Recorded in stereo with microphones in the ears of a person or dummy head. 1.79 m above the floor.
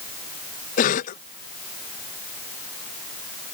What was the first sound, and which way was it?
A cough, 45° left (ahead or behind).